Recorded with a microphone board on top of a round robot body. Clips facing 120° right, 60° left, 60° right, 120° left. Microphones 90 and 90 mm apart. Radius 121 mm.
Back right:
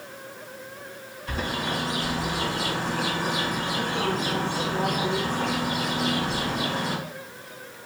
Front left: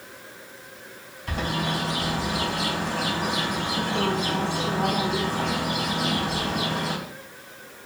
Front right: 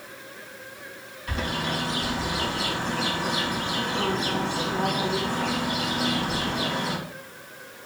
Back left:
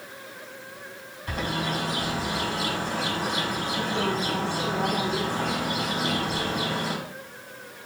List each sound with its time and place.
1.3 s a bird: 70° left, 5 m